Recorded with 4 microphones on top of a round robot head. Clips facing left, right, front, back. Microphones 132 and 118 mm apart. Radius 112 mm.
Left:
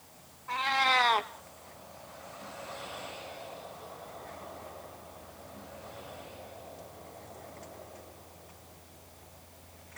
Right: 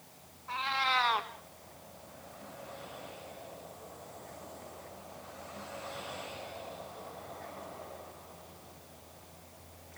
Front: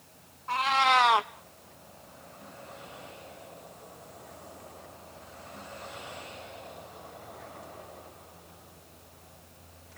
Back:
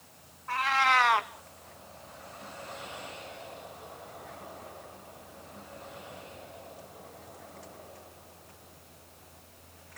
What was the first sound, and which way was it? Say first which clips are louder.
A cat meowing: left 4 dB, front 2 dB; 50° left.